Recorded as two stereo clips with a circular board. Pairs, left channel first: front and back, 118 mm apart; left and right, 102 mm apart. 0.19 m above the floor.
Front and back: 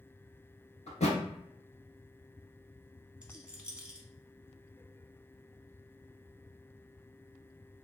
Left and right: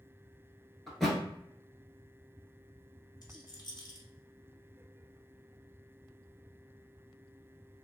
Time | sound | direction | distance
0.9 | a thud | 5° left | 1.0 m
3.2 | a rattle | 105° left | 0.8 m